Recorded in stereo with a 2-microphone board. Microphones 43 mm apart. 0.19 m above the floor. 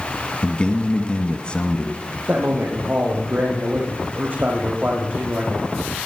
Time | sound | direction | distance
0.4 | a man speaking | 25° left (ahead or behind) | 1.3 m
2.3 | a man speaking | 45° right (ahead or behind) | 8.5 m